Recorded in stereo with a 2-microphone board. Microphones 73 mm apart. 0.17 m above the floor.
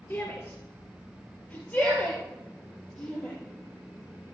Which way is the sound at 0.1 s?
30° left (ahead or behind).